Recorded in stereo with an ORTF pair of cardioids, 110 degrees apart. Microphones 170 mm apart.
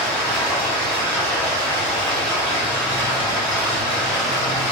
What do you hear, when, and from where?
0.0 s running water: 5° left, 1.9 m